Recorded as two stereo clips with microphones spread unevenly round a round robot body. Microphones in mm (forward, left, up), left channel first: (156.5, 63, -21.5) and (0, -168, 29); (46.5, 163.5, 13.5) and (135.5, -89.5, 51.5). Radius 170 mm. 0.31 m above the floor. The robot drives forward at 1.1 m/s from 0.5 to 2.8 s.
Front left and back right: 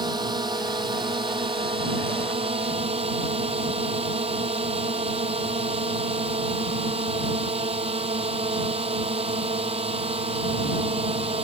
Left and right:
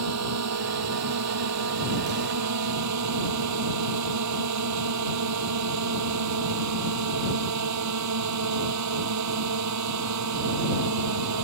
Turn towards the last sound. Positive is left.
turn(degrees=-55)